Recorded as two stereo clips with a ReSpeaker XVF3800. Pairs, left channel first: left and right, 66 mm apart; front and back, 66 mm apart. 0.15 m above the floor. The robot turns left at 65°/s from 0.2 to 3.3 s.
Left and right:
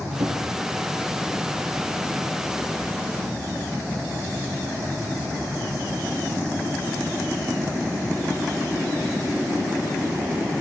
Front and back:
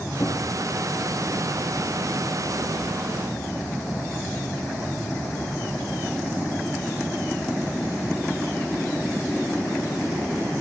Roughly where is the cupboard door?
Ahead right.